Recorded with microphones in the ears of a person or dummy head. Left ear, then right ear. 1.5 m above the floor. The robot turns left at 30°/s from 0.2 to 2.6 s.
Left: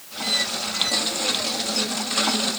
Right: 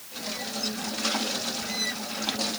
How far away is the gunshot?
I don't hear a gunshot.